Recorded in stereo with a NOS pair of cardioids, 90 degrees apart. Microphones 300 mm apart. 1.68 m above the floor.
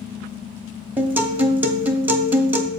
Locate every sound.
1.0 s a guitar: 5° right, 1.1 m